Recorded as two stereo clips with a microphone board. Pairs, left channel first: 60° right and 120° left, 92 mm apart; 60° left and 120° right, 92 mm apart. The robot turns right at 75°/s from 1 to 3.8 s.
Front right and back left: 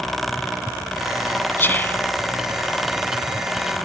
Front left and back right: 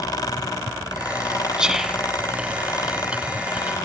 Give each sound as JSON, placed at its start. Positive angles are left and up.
{"t": 1.6, "sound": "whispering", "azimuth_deg": -55, "distance_m": 1.0}